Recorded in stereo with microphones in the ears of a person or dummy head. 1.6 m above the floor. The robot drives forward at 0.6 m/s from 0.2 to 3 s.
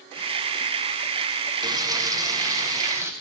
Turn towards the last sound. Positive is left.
turn(degrees=-10)  # may be behind; listen again after turning